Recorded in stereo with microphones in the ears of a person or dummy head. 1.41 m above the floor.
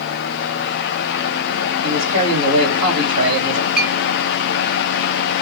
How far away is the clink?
About 0.7 m.